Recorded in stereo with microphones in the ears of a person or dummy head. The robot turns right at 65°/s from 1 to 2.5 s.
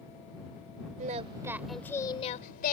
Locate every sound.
1.0 s singing: 50° right; by 2.7 s 50° left